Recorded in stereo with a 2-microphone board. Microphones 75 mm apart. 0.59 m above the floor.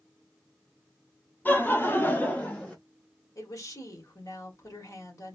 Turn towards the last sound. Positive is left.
turn(degrees=50)  # may be behind; listen again after turning